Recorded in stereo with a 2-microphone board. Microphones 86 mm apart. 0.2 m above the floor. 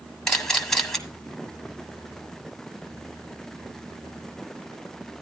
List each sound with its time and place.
0.3 s a camera shutter: 5° left (ahead or behind), 1.6 m